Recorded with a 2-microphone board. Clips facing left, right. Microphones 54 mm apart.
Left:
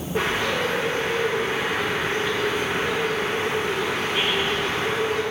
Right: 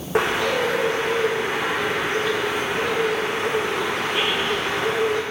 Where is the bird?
70° right (ahead or behind), 2.5 m.